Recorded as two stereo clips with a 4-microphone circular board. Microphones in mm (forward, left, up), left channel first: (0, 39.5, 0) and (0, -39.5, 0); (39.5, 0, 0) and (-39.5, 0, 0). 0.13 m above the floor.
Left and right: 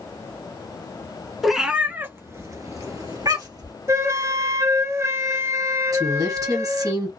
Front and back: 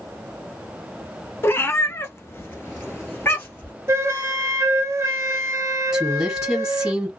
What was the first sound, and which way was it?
A cat meowing, straight ahead.